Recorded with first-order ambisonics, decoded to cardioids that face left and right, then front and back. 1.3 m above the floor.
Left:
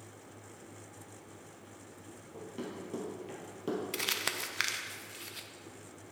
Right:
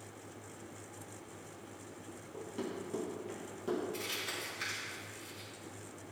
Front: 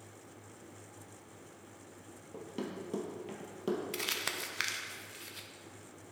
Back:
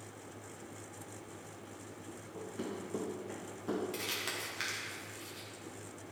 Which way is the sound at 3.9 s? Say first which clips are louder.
Left 5 dB, front 2 dB; 65° left.